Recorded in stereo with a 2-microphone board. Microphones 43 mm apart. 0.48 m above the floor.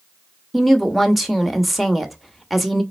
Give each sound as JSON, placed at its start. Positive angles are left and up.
{"t": 0.5, "sound": "a woman speaking", "side_deg": 0, "distance_m": 1.0}